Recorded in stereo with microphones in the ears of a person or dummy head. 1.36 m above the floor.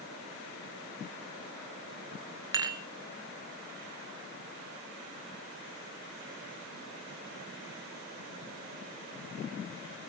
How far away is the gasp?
I don't hear a gasp.